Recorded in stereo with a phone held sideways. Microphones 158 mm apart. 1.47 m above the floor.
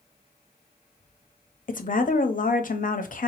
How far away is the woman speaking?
About 0.6 m.